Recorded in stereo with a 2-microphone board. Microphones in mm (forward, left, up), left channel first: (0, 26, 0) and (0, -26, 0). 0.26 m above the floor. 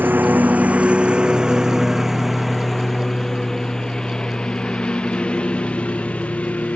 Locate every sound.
0.0 s a lawn mower: 40° right (ahead or behind); by 6.8 s 25° left (ahead or behind)